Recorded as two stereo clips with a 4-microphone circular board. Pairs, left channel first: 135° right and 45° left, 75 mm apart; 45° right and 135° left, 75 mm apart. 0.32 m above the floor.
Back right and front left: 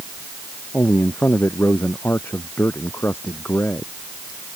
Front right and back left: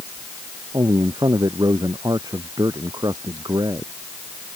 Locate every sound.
0.7 s a man speaking: 165° left